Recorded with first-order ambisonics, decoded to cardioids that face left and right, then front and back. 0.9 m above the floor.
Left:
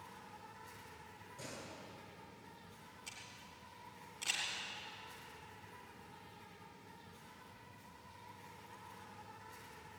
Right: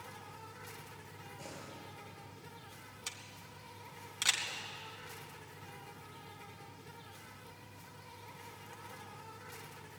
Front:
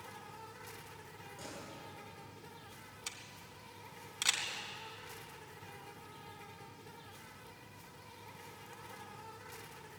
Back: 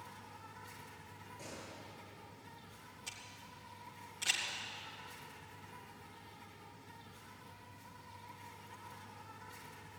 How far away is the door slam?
About 8 m.